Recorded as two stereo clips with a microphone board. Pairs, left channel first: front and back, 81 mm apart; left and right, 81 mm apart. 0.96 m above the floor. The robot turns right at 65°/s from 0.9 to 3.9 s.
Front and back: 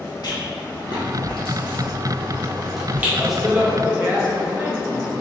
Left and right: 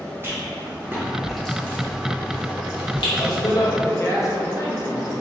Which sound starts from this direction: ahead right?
A rattle, at 0.2 s.